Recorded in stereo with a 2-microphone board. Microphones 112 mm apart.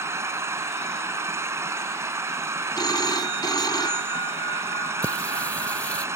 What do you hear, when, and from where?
0.0 s an engine running: 25° right (ahead or behind)
2.8 s a phone ringing: 35° left (ahead or behind)
5.0 s singing: 10° left (ahead or behind)